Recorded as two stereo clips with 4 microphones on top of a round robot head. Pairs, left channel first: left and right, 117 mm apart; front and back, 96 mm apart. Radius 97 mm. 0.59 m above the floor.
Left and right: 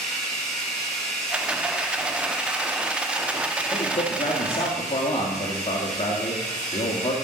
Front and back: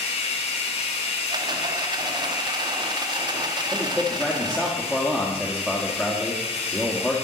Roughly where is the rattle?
Behind.